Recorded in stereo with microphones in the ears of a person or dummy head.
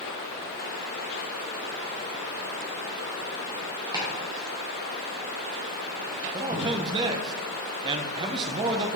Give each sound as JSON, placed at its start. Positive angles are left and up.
{"t": 3.9, "sound": "chopping", "side_deg": -15, "distance_m": 1.4}
{"t": 6.3, "sound": "a man speaking", "side_deg": -20, "distance_m": 0.6}